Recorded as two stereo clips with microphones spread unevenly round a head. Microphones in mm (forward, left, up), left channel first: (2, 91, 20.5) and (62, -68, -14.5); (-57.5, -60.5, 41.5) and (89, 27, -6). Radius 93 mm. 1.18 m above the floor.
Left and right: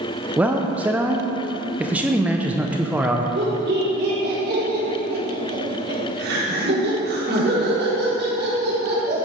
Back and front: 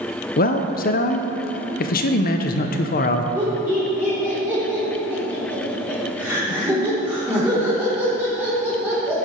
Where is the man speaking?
130° right, 0.8 m.